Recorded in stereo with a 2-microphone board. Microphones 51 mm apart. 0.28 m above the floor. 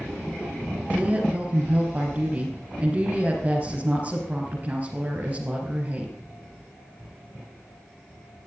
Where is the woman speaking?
25° right (ahead or behind), 4.5 m.